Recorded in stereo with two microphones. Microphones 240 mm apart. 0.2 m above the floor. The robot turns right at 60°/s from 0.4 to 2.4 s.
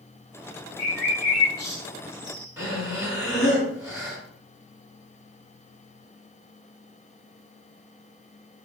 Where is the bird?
35° right (ahead or behind), 4 m; by 2.5 s 45° right (ahead or behind), 4 m.